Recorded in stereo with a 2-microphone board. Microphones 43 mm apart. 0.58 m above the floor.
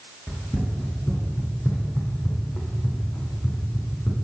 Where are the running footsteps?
25° left (ahead or behind), 2 m; by 4.1 s 75° left (ahead or behind), 2.5 m.